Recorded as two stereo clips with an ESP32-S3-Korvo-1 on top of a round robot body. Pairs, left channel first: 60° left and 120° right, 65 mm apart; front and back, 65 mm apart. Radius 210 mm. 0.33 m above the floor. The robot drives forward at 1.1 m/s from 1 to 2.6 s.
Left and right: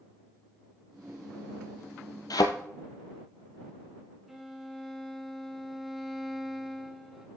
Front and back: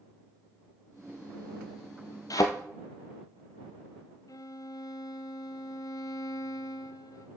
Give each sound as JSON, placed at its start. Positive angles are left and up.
{"t": 2.3, "sound": "a thud", "azimuth_deg": 35, "distance_m": 1.0}
{"t": 4.3, "sound": "a violin", "azimuth_deg": -35, "distance_m": 0.5}